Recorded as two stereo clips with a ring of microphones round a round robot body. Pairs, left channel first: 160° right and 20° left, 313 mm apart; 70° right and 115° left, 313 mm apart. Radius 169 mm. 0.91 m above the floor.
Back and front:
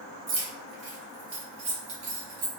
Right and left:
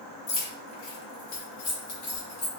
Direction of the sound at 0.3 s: 45° right.